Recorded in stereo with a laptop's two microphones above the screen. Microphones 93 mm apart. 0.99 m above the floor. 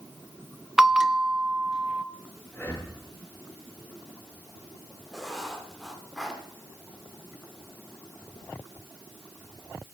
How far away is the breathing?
About 1.7 m.